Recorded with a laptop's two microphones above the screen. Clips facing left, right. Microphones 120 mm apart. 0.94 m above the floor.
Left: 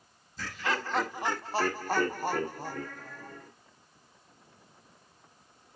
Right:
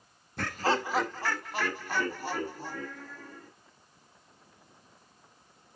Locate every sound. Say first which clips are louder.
0.4 s laughter: right 5 dB; 60° right (ahead or behind), 1.0 m; by 3.5 s 55° left (ahead or behind), 4.5 m